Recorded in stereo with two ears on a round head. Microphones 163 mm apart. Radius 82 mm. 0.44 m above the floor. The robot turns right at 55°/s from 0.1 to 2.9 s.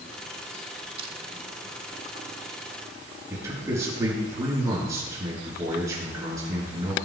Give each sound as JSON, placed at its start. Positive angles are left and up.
{"t": 1.0, "sound": "crushing", "side_deg": -30, "distance_m": 1.5}
{"t": 3.3, "sound": "a man speaking", "side_deg": -15, "distance_m": 6.0}